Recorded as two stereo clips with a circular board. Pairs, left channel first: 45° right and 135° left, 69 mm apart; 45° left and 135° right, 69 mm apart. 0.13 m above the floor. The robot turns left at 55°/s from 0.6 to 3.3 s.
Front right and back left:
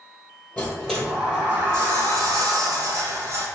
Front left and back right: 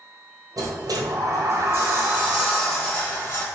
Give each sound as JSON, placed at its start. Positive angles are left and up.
{"t": 0.6, "sound": "a sliding door", "azimuth_deg": -110, "distance_m": 1.5}